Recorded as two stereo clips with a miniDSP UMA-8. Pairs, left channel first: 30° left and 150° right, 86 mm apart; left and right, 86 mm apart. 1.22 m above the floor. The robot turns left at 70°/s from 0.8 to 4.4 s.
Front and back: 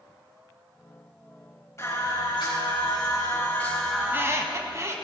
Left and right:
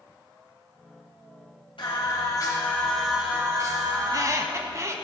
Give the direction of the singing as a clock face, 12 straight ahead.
9 o'clock.